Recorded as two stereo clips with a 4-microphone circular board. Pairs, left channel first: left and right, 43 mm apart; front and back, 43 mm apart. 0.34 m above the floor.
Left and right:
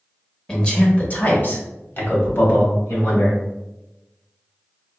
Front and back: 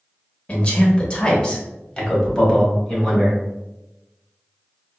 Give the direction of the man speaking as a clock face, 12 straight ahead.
11 o'clock.